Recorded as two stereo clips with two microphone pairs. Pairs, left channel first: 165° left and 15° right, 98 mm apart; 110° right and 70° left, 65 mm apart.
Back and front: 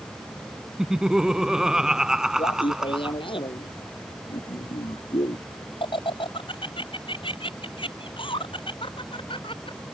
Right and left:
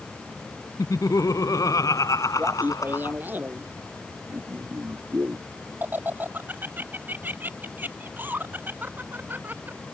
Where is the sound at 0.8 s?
100° right.